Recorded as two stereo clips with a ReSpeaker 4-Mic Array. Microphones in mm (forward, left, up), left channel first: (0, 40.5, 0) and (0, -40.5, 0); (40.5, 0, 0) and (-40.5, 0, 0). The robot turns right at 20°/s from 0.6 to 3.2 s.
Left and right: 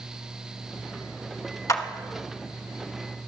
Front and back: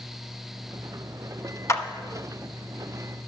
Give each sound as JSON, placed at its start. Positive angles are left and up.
{"t": 1.7, "sound": "a clap", "azimuth_deg": 45, "distance_m": 0.8}